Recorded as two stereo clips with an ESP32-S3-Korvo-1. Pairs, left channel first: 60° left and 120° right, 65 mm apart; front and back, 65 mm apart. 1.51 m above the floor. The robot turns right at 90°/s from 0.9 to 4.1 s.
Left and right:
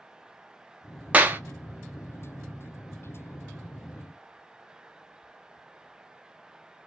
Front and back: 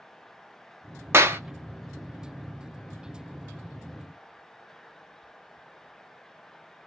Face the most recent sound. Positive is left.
turn(degrees=90)